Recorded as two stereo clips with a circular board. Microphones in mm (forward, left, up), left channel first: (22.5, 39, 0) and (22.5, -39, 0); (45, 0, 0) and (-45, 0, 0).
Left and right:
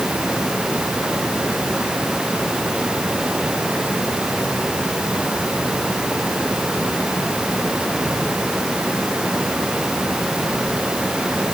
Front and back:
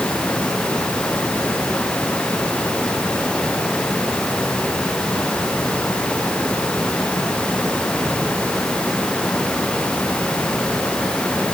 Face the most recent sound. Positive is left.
No sound to turn to.